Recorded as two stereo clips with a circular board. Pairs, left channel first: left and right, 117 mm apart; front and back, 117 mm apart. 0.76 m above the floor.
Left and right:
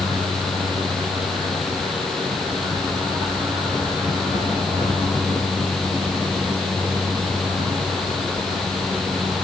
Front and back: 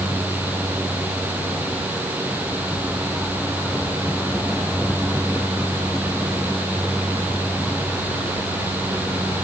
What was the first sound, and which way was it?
Only background noise.